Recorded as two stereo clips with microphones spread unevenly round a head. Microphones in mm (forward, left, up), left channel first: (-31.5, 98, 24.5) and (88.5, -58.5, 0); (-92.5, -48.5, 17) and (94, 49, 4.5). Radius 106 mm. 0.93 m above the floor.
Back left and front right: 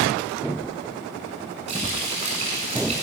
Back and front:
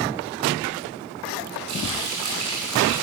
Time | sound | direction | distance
1.7 | frying | 5° left | 8.5 m